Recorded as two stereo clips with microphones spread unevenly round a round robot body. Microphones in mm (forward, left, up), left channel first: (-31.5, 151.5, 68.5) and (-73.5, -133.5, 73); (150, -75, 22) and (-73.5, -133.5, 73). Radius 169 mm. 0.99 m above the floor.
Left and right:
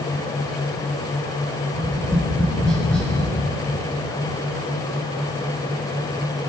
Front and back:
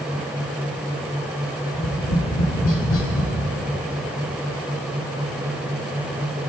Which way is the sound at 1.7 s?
5° right.